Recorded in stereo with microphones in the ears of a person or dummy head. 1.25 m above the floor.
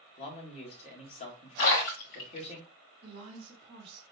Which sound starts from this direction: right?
A woman speaking, at 3.0 s.